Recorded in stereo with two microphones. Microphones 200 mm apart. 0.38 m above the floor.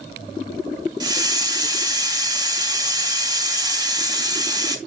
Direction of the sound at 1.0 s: 20° right (ahead or behind).